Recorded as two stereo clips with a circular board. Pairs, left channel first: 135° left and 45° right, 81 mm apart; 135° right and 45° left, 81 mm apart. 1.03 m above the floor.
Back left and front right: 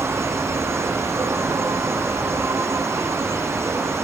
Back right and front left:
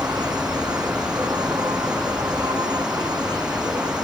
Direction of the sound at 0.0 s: 10° left.